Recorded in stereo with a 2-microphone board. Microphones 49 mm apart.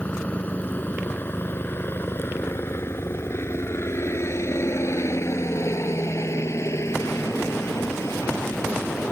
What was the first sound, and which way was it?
A helicopter, 30° left (ahead or behind).